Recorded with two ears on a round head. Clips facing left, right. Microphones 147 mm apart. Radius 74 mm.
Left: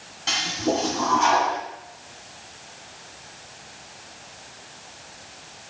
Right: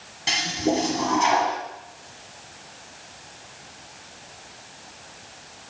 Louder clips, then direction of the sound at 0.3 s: Right 1 dB; 20° right (ahead or behind).